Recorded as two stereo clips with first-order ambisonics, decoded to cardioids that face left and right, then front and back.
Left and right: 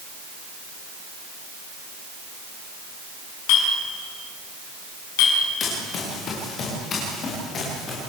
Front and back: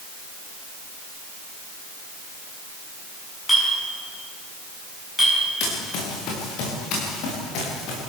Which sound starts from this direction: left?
A clink, at 3.5 s.